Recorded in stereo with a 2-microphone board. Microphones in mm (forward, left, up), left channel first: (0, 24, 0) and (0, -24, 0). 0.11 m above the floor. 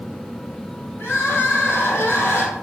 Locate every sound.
1.0 s crying: 55° left (ahead or behind), 1.7 m